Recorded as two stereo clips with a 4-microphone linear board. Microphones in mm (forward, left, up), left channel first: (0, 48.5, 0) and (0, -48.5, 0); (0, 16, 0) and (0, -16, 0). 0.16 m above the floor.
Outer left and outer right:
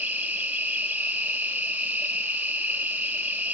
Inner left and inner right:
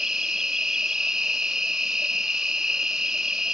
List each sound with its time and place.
0.0 s an insect: 10° right (ahead or behind), 1.1 m